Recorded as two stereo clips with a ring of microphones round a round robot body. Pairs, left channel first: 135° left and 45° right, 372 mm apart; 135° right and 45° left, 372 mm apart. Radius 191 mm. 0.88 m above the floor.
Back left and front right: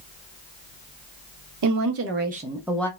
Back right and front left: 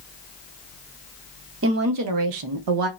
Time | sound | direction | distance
1.6 | a woman speaking | 10° right | 0.8 m